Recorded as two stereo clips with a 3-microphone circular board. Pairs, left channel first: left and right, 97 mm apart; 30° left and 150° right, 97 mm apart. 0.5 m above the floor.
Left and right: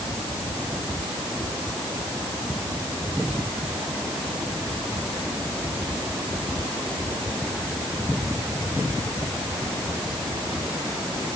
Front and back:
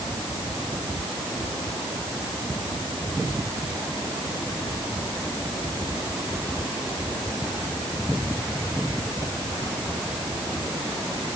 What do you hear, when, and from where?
Only background noise.